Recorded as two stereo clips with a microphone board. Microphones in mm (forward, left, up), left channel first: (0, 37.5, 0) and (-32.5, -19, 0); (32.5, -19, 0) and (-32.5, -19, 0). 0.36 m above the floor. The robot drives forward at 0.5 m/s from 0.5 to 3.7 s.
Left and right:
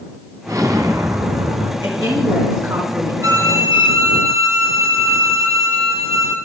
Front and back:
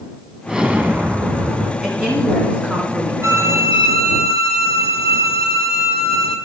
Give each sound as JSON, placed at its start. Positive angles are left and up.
{"t": 0.5, "sound": "an explosion", "azimuth_deg": -100, "distance_m": 0.9}
{"t": 1.8, "sound": "a woman speaking", "azimuth_deg": -100, "distance_m": 3.5}
{"t": 3.2, "sound": "a violin", "azimuth_deg": -140, "distance_m": 0.9}